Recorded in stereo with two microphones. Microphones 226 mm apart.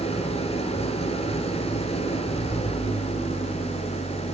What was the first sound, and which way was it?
An engine running, 25° left (ahead or behind).